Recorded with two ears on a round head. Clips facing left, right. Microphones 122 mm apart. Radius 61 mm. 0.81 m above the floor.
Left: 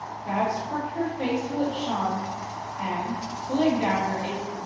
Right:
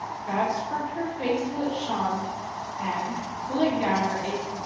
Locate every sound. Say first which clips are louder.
0.2 s a woman speaking: even; 25° left (ahead or behind), 1.3 m